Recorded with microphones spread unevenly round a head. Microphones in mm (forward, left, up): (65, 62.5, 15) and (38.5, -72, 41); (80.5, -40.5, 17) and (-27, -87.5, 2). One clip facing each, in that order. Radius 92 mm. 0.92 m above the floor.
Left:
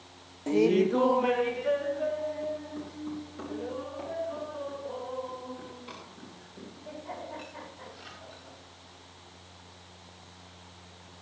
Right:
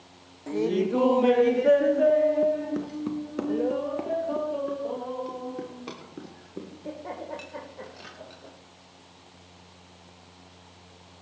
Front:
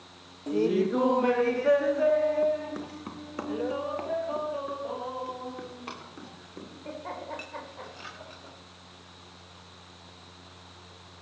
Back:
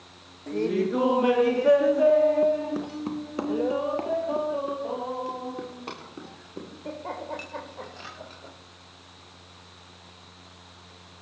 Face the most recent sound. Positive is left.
turn(degrees=-95)